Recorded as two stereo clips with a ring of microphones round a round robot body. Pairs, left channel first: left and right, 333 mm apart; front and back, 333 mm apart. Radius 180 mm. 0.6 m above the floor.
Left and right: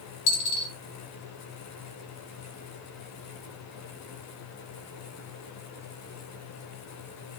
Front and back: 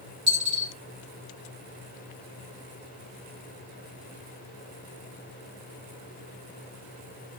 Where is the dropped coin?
105° left, 2 m.